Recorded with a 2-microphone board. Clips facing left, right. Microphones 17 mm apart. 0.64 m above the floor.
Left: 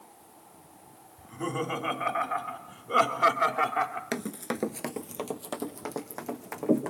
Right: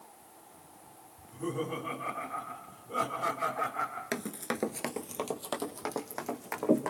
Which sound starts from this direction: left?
Laughter, at 1.2 s.